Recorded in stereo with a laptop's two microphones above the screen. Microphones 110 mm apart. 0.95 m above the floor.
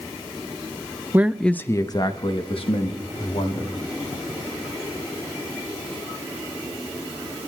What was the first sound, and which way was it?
A man speaking, 20° right (ahead or behind).